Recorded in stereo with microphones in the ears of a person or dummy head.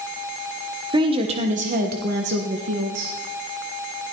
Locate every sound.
0.9 s a woman speaking: 25° right (ahead or behind), 1.2 m; by 3.1 s 65° right (ahead or behind), 1.6 m